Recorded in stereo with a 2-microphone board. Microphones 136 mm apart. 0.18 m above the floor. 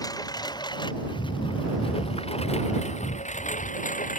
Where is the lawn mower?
25° left (ahead or behind); by 4.2 s 75° left (ahead or behind).